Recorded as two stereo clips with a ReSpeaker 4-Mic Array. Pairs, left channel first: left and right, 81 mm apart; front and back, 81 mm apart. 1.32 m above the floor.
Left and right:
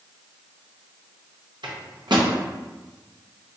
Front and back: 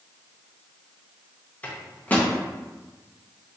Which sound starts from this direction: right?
A microwave, at 1.6 s.